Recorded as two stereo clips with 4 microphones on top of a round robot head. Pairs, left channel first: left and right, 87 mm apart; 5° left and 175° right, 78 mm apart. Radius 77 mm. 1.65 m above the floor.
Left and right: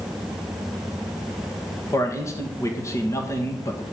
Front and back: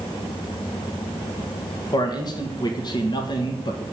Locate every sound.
1.9 s a man speaking: 35° left, 2.0 m